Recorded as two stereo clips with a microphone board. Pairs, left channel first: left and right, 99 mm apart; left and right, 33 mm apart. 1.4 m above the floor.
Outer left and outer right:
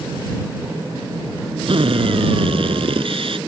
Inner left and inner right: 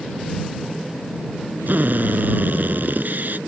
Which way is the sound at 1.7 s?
65° right (ahead or behind).